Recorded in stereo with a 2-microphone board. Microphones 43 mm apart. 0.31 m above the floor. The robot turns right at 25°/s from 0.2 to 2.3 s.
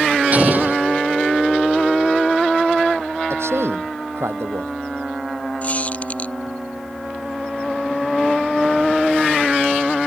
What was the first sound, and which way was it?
An explosion, 40° right (ahead or behind).